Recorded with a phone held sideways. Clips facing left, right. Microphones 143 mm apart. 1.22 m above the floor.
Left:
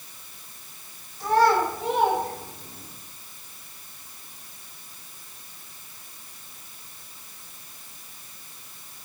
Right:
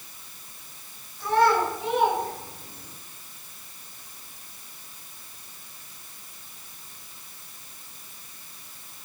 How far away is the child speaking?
About 3 m.